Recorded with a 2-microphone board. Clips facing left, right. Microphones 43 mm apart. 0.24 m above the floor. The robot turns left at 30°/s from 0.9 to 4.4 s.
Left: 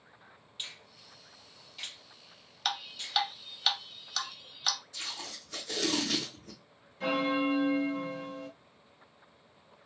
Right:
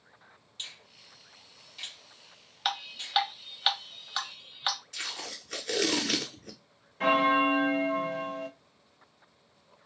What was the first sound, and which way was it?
A finger snap, 15° left (ahead or behind).